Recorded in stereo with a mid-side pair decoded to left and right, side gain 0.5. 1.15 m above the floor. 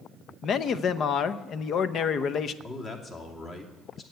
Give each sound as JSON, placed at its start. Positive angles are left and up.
{"t": 0.4, "sound": "a man speaking", "azimuth_deg": 55, "distance_m": 0.7}
{"t": 2.6, "sound": "a man speaking", "azimuth_deg": 45, "distance_m": 2.5}